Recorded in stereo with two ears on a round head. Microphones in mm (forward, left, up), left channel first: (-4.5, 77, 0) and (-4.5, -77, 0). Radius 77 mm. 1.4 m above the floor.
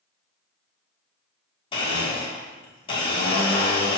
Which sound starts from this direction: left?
A blender, at 1.7 s.